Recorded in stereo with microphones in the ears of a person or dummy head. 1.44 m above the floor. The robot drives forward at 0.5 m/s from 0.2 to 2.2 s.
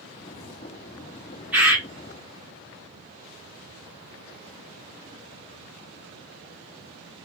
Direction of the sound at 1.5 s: 5° right (ahead or behind).